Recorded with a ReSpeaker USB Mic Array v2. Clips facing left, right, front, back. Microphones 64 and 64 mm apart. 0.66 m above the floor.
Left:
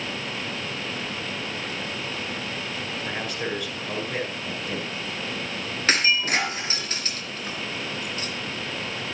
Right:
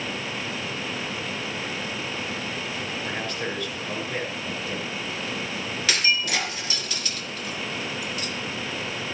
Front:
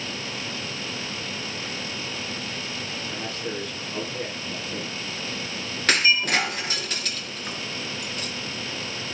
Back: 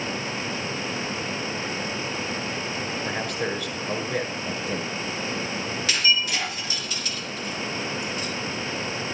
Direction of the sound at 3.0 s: 165° left.